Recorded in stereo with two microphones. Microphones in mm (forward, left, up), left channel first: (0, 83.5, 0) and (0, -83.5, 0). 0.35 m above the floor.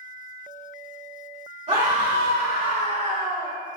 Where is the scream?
45° right (ahead or behind), 2.0 m.